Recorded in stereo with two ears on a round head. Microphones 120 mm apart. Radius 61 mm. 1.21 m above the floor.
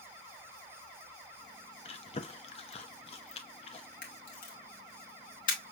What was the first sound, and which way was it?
Chewing, 45° left (ahead or behind).